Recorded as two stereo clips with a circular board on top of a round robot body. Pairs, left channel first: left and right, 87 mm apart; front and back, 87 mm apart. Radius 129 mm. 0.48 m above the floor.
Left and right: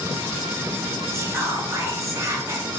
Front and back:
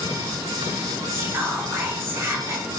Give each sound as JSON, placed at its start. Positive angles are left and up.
{"t": 1.1, "sound": "whispering", "azimuth_deg": -130, "distance_m": 1.1}